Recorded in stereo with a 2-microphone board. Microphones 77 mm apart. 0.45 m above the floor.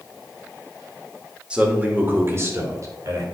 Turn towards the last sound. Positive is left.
turn(degrees=-50)  # may be behind; listen again after turning